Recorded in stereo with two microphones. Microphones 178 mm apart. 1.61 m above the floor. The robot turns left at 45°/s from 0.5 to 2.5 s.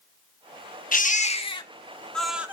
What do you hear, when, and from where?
0.9 s a baby crying: 60° left, 1.5 m; by 2.5 s 10° right, 1.5 m